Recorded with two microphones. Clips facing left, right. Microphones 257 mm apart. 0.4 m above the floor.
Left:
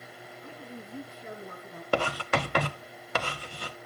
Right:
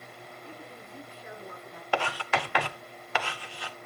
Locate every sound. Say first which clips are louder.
0.4 s a woman speaking: left 4 dB; 55° left (ahead or behind), 6 m
1.9 s writing: left 3 dB; 50° left (ahead or behind), 1.0 m